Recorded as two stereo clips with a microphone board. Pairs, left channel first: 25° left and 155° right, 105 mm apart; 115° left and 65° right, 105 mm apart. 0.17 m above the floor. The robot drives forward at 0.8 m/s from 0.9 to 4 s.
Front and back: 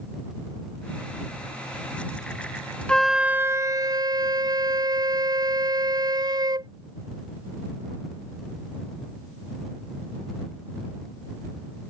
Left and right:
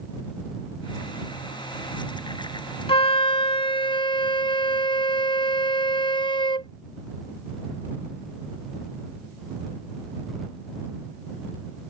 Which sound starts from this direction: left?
A flute, at 2.9 s.